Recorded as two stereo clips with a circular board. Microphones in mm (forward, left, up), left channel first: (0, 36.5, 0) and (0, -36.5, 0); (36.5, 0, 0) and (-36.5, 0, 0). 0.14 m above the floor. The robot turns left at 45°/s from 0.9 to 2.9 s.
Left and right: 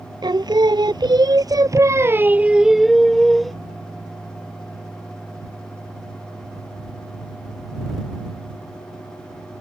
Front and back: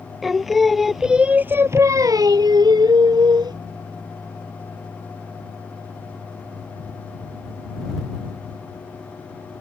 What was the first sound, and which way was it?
Singing, 90° right.